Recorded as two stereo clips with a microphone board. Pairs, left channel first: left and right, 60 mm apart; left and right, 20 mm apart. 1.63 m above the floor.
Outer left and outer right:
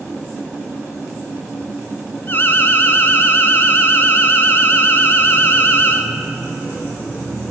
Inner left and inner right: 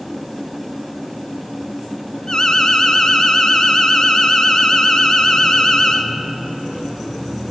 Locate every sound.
2.3 s an alarm: 40° left (ahead or behind), 0.8 m